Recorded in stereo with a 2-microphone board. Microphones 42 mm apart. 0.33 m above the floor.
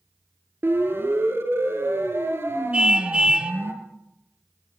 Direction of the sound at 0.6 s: 65° right (ahead or behind).